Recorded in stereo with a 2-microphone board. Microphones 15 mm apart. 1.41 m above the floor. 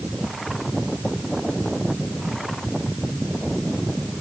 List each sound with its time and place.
Only background noise.